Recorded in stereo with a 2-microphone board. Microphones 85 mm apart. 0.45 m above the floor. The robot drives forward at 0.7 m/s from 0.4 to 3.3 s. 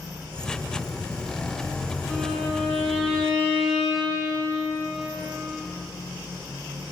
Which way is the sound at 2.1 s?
5° left (ahead or behind).